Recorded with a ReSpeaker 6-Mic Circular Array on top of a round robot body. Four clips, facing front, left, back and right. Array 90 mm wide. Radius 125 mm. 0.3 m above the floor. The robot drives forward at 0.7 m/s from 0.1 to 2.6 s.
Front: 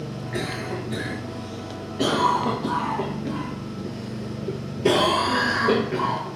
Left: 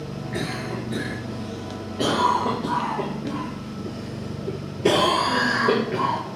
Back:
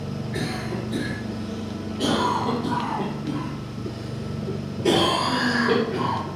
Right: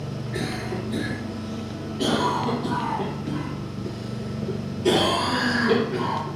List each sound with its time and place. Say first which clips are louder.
0.3 s a cough: even, front 1 dB; 30° left, 2.5 m; by 6.4 s 60° left, 1.6 m